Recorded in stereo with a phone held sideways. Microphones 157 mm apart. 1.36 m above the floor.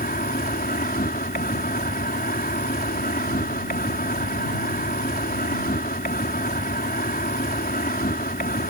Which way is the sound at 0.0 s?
80° left.